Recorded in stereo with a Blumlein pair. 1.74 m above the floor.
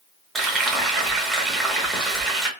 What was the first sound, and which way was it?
Frying, 10° right.